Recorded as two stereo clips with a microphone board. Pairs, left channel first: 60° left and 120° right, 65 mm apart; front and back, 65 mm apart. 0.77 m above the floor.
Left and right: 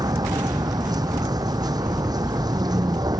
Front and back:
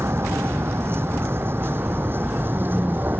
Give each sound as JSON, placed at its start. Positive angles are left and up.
{"t": 0.0, "sound": "a vehicle", "azimuth_deg": -130}